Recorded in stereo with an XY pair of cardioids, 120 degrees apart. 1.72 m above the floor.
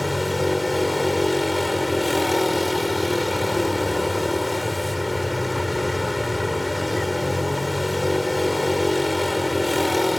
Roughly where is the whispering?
No whispering in this recording.